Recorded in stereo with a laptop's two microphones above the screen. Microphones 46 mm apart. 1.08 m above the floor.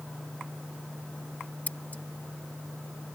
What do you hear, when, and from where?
1.7 s scissors: 35° left (ahead or behind)